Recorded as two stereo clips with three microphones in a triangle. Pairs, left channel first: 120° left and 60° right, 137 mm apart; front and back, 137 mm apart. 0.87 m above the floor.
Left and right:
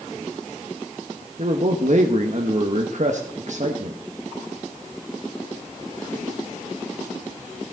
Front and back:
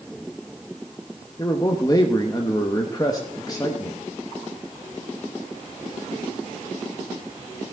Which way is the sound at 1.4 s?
55° right.